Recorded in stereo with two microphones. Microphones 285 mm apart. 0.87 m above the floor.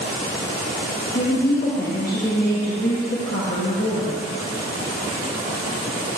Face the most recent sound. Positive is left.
turn(degrees=35)  # may be behind; listen again after turning